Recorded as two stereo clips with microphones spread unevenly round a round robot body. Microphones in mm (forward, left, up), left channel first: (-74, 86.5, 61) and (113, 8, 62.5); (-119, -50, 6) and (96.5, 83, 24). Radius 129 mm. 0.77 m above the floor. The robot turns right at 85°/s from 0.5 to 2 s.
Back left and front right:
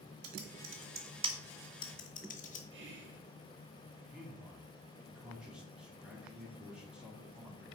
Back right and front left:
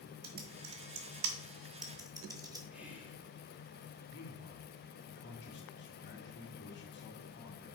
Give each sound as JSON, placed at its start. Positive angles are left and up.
{"t": 0.2, "sound": "typing on a keyboard", "azimuth_deg": -20, "distance_m": 1.0}
{"t": 2.7, "sound": "whispering", "azimuth_deg": -55, "distance_m": 1.3}
{"t": 4.1, "sound": "a man speaking", "azimuth_deg": -110, "distance_m": 2.0}